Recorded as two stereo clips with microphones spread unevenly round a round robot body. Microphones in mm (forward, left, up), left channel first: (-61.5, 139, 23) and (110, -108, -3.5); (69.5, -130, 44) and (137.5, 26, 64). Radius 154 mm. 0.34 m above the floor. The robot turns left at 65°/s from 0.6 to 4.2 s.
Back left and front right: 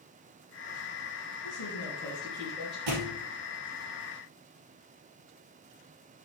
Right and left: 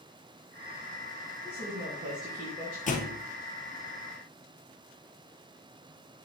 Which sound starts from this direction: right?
A thud, at 2.9 s.